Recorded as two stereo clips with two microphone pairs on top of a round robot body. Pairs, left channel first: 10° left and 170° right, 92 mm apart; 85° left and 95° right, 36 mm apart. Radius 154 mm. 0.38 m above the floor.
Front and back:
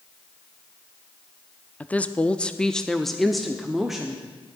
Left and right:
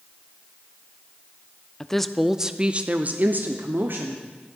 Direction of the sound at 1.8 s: 85° left.